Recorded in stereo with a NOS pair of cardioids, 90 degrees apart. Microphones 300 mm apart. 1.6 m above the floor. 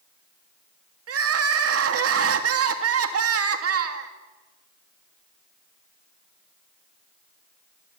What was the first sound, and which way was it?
Crying, 50° right.